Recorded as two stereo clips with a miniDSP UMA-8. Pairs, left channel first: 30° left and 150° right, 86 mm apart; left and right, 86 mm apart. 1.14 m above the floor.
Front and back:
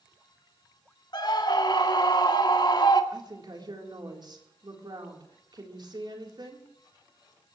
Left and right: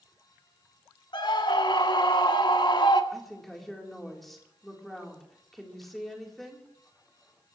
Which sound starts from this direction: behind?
A woman speaking, at 3.1 s.